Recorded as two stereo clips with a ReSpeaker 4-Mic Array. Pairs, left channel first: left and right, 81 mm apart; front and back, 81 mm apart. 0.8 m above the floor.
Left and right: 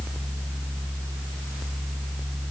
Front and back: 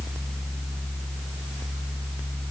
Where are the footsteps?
I don't hear footsteps.